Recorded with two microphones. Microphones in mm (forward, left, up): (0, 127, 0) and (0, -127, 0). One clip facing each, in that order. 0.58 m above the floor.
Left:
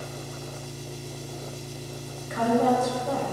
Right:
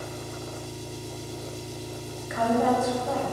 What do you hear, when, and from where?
0.0 s an engine running: 65° left (ahead or behind), 2.5 m
2.3 s a woman speaking: 40° left (ahead or behind), 3 m